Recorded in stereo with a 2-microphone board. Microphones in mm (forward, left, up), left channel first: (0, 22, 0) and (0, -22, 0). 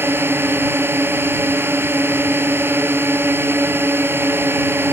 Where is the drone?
55° right (ahead or behind).